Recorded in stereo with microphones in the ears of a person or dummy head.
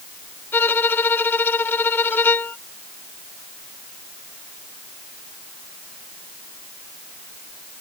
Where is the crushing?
I don't hear crushing.